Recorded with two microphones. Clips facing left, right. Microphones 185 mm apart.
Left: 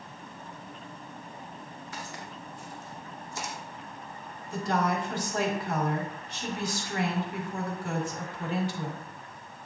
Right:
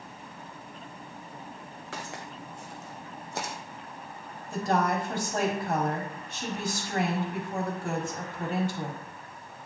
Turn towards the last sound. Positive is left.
turn(degrees=-50)  # may be behind; listen again after turning